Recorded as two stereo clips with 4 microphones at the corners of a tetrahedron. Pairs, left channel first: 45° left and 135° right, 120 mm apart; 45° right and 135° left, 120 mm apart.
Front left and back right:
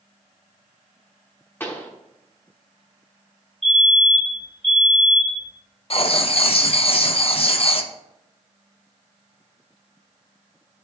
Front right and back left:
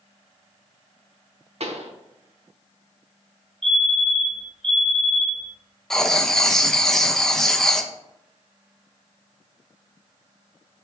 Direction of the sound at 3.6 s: 130° right.